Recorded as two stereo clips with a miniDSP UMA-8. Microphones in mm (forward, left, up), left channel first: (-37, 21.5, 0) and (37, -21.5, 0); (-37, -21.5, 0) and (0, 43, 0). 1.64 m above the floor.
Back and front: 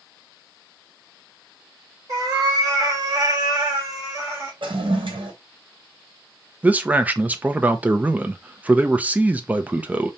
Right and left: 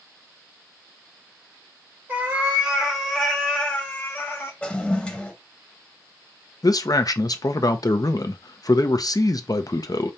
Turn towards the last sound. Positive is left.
turn(degrees=-100)